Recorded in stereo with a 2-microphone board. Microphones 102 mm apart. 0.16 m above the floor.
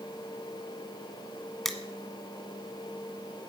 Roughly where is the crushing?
Centre.